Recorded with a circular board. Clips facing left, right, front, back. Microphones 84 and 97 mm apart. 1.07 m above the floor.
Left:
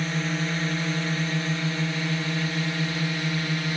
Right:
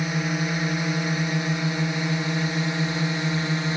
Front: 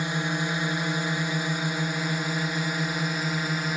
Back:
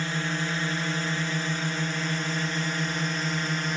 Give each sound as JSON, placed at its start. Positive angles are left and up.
{"t": 0.0, "sound": "a drone", "azimuth_deg": -40}